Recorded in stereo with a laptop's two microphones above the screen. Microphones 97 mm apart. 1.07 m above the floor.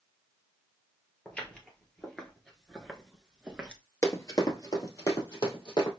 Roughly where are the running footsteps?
Left.